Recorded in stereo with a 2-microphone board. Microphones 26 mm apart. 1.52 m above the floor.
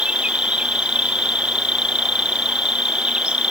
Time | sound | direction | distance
0.0 | an insect | 45° right (ahead or behind) | ?